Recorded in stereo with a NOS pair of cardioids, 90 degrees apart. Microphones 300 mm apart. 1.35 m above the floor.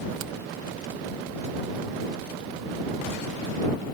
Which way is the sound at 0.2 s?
65° right.